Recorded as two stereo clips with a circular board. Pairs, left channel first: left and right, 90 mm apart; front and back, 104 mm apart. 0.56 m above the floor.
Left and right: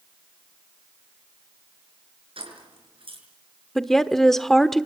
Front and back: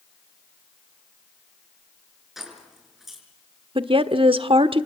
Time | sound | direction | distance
2.4 | keys jangling | 95° right | 6 m
3.8 | a woman speaking | 175° left | 1.2 m